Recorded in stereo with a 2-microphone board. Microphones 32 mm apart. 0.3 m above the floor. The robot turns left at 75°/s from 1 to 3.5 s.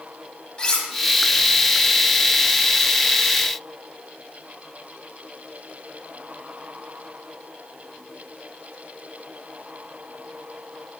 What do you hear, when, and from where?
0.6 s cutlery clinking: 25° left (ahead or behind), 1.3 m